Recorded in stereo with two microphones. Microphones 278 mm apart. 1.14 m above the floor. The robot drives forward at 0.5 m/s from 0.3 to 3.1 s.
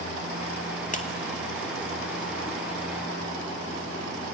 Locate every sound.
0.9 s a clap: 25° left (ahead or behind), 2 m